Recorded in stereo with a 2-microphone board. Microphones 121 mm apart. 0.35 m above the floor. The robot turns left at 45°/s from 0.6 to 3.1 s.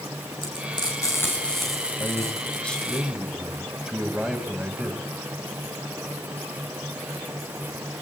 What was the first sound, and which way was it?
Frying, 45° left (ahead or behind).